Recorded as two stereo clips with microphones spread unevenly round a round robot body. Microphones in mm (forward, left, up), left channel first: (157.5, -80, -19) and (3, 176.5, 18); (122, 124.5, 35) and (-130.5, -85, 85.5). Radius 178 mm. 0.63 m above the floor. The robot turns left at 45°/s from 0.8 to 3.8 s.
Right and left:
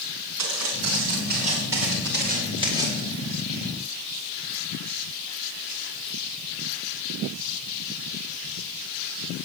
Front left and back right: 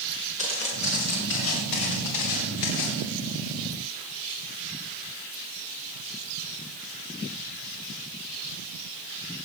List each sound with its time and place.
0.4 s footsteps: 110° left, 8 m; by 3.0 s 35° left, 8 m